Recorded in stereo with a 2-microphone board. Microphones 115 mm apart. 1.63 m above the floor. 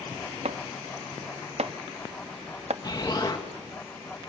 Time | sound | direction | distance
0.5 | chopping | 65° right (ahead or behind) | 0.7 m
2.8 | an explosion | 35° left (ahead or behind) | 2 m